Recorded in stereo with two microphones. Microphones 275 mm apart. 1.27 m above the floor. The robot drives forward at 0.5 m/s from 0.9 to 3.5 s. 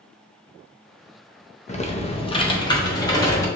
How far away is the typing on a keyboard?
About 0.5 m.